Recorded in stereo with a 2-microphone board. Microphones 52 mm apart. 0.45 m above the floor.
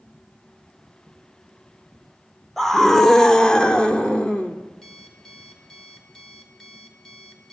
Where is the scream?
5° left (ahead or behind), 1.3 m; by 4.5 s 25° left (ahead or behind), 1.2 m.